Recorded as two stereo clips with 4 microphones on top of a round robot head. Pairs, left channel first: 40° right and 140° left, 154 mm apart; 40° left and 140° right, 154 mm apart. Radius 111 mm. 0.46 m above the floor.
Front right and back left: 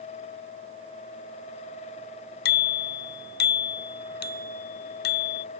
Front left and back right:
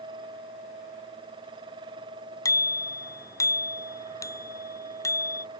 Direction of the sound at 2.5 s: 30° right.